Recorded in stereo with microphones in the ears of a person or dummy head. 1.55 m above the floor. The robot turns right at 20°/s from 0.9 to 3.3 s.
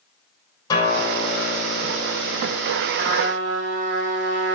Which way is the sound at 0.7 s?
25° left.